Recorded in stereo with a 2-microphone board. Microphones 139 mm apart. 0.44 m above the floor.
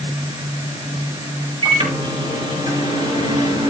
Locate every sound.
1.6 s a microwave: 40° right (ahead or behind), 6 m